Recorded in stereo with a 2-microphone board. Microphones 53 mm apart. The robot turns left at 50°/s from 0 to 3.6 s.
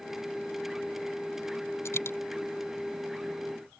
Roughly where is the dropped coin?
Left.